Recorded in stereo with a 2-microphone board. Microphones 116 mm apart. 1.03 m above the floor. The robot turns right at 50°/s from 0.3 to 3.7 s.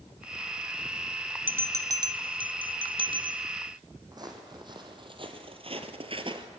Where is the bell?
15° right (ahead or behind), 0.6 m; by 3.4 s 40° right (ahead or behind), 0.6 m.